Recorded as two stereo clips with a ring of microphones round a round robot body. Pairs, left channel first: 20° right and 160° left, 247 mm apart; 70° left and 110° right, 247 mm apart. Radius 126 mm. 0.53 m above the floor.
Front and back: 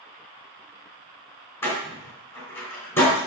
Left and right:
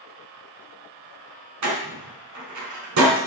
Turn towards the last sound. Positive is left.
turn(degrees=-105)